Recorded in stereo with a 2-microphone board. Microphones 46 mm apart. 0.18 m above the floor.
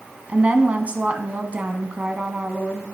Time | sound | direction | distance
0.3 | a woman speaking | 30° right (ahead or behind) | 1.3 m